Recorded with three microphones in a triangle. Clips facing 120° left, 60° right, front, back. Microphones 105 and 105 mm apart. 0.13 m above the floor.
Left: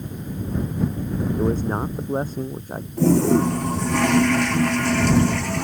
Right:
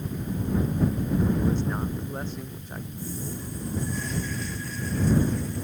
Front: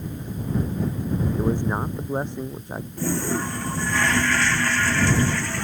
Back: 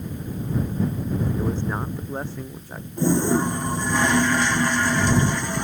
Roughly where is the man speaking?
Left.